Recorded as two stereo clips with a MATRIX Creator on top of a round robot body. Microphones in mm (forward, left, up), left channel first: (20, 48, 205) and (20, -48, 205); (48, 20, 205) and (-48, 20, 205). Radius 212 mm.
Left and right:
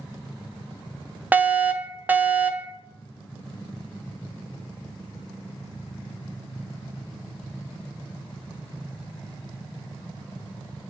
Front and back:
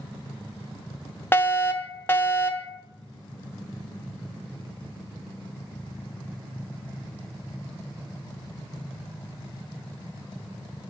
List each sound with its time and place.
1.3 s a fire alarm: 35° right, 1.5 m